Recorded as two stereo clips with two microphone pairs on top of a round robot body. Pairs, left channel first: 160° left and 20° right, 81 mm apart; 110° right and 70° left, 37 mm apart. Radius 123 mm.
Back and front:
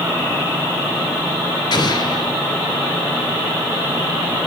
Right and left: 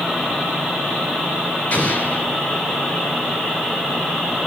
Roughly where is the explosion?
Behind.